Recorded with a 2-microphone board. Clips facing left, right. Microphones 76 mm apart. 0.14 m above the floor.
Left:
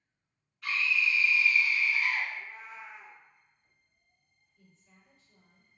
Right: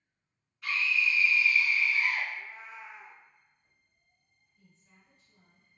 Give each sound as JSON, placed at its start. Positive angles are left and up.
{"t": 0.6, "sound": "a scream", "side_deg": 0, "distance_m": 1.2}
{"t": 2.3, "sound": "a cat meowing", "side_deg": -15, "distance_m": 0.9}
{"t": 4.5, "sound": "a woman speaking", "side_deg": -30, "distance_m": 1.9}